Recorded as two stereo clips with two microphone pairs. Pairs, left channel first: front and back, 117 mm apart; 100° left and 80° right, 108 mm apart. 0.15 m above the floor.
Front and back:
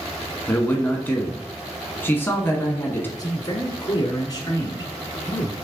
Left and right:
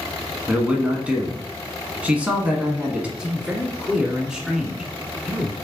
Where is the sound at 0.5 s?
25° right, 1.0 m.